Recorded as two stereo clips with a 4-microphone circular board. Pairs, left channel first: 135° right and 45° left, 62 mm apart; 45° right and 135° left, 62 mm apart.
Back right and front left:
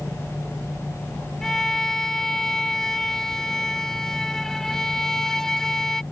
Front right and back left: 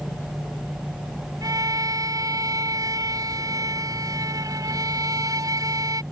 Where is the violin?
145° left.